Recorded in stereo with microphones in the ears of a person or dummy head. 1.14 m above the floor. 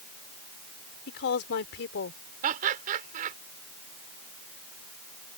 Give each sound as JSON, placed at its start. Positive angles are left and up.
{"t": 1.1, "sound": "a woman speaking", "side_deg": 55}
{"t": 2.4, "sound": "laughter", "side_deg": -45}